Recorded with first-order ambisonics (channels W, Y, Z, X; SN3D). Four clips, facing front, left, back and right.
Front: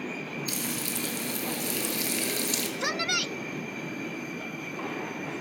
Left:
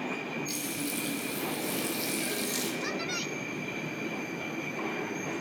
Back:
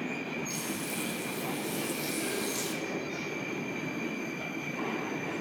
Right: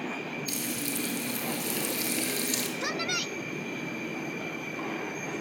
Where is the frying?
30° right, 6 m.